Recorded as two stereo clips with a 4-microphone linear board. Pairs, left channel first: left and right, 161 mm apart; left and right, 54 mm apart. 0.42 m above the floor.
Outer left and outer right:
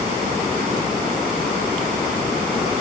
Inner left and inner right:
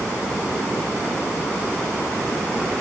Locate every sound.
Only background noise.